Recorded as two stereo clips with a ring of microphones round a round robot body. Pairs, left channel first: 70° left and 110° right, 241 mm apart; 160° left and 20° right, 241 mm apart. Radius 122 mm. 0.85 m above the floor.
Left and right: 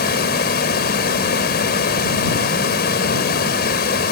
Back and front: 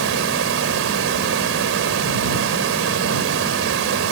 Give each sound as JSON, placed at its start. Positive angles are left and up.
{"t": 0.0, "sound": "running water", "azimuth_deg": 15}